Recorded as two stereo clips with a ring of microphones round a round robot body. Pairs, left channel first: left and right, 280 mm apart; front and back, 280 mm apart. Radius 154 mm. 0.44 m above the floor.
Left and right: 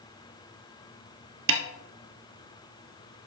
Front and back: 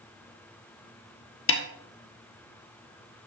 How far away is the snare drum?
About 1.6 m.